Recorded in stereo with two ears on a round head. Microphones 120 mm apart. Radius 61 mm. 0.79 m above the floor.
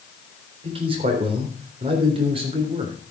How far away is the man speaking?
About 3.5 m.